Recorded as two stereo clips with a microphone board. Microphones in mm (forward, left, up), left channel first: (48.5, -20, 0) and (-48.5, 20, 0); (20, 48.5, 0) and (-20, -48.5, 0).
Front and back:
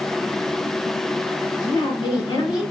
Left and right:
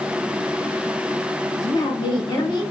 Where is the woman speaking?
20° left, 1.6 m.